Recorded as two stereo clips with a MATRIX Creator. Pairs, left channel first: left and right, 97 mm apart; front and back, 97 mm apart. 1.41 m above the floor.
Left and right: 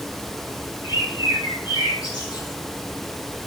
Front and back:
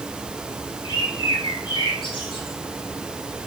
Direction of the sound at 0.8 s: 45° left.